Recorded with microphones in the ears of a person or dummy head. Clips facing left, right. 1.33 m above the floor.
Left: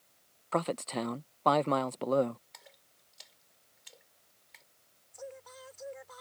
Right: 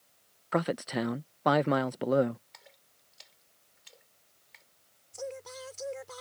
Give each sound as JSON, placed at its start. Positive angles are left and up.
{"t": 0.5, "sound": "a man speaking", "side_deg": -15}
{"t": 2.5, "sound": "a splash", "side_deg": 0}
{"t": 5.1, "sound": "singing", "side_deg": -60}